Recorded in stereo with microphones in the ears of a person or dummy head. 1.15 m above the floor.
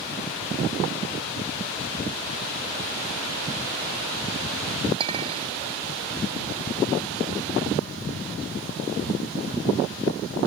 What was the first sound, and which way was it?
A clink, 30° right (ahead or behind).